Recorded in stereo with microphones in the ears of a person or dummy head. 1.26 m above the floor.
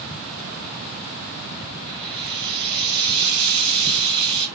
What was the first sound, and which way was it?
Frying, 65° right (ahead or behind).